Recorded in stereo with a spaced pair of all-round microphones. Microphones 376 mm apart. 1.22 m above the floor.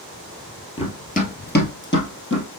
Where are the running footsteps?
15° left (ahead or behind), 1.2 m; by 2.6 s 35° left (ahead or behind), 1.9 m.